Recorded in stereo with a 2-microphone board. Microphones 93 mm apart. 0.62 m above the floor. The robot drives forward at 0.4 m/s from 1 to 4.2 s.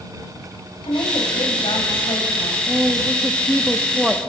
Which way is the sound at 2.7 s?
5° right (ahead or behind).